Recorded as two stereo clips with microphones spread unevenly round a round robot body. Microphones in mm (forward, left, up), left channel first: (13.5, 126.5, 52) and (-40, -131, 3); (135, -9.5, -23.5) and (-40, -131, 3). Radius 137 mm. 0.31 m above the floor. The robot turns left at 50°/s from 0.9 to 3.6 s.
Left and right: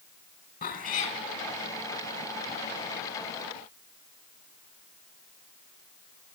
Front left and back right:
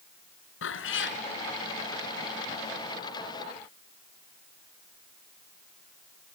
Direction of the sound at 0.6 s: 15° left.